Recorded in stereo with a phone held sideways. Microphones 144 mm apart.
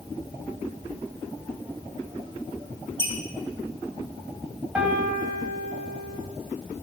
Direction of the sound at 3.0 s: 30° right (ahead or behind).